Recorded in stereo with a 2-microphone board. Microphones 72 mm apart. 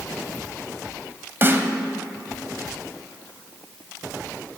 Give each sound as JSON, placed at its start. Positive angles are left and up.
{"t": 1.4, "sound": "a snare drum", "side_deg": -30, "distance_m": 0.6}